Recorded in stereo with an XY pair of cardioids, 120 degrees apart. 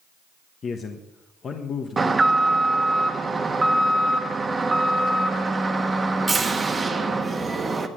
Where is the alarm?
20° right, 1.3 m.